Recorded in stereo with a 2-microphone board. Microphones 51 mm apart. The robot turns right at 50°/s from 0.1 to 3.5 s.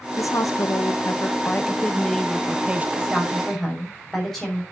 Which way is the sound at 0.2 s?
75° left.